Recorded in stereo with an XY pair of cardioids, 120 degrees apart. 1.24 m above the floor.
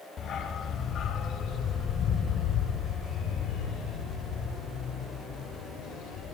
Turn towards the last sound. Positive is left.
turn(degrees=75)